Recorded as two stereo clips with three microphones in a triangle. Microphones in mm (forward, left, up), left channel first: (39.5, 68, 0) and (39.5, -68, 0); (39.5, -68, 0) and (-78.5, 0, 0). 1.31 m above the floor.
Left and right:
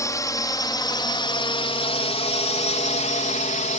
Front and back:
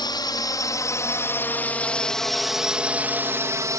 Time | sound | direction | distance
0.0 | a drone | 25° left | ?